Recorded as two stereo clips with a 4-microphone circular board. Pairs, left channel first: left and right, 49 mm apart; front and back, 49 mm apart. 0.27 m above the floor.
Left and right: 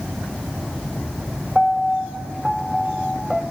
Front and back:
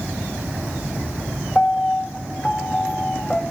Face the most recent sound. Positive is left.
turn(degrees=-20)